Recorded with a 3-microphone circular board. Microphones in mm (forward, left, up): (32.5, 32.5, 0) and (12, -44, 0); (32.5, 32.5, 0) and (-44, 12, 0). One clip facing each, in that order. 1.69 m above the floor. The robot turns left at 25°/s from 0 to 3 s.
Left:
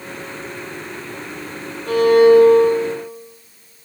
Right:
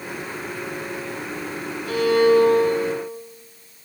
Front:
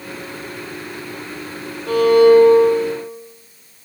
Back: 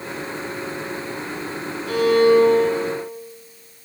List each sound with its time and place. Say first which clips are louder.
1.9 s a violin: left 6 dB, front 5 dB; 45° left, 5 m; by 3.0 s 15° left, 5 m